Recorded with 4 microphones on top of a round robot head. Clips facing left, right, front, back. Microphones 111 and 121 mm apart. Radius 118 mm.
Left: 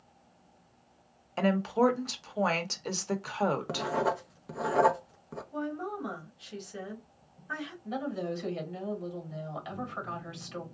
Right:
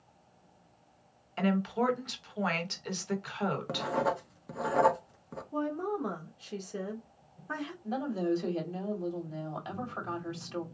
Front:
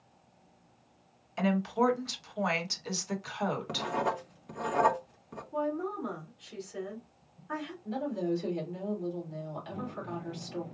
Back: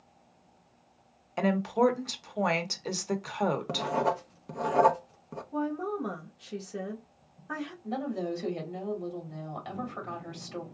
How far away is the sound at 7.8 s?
About 2.5 m.